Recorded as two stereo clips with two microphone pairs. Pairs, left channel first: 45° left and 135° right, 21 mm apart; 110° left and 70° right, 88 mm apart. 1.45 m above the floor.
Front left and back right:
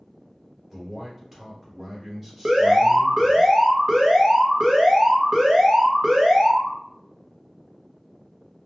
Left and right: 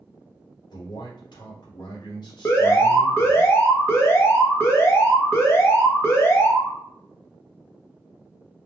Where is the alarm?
170° left, 0.7 m.